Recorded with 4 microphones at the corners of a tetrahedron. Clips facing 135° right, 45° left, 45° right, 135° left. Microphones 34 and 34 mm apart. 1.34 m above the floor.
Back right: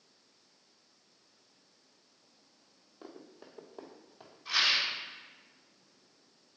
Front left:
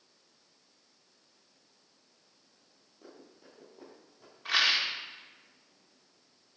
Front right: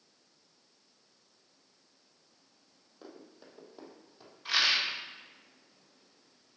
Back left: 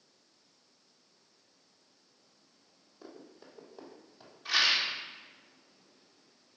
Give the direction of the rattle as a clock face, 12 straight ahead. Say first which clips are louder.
Front left 2 dB, even; 11 o'clock.